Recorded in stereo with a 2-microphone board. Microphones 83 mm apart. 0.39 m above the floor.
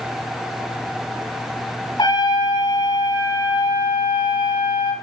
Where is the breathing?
I don't hear breathing.